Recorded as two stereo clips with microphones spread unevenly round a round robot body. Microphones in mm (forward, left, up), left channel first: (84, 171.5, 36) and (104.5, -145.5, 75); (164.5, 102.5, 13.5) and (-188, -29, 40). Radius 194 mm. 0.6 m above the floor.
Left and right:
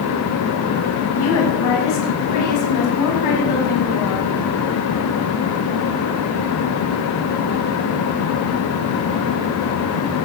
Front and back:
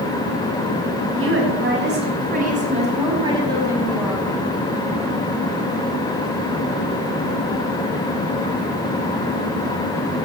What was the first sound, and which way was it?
A woman speaking, 145° left.